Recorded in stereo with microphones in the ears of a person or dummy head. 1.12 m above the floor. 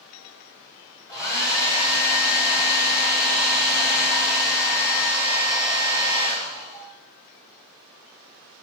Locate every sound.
1.1 s a hair dryer: 15° left (ahead or behind), 3.5 m